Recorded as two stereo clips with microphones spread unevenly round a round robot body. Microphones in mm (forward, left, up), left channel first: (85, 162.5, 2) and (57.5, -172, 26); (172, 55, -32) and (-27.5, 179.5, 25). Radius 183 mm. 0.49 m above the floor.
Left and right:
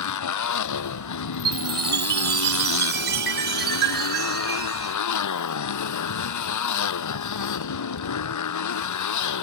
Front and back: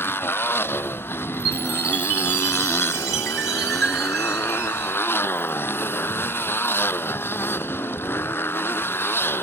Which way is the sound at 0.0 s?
50° left.